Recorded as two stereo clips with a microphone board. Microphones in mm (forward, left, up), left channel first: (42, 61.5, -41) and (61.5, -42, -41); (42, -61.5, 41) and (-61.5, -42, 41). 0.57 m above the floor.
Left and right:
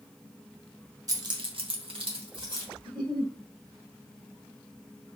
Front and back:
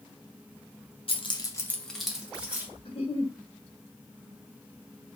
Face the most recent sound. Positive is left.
turn(degrees=-35)